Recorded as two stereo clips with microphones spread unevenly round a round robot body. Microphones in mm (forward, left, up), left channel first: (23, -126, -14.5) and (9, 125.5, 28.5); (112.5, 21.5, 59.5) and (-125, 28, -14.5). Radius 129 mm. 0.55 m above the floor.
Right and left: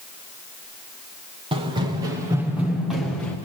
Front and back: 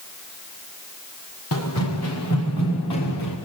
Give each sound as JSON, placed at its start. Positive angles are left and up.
{"t": 1.5, "sound": "running footsteps", "azimuth_deg": 25, "distance_m": 4.0}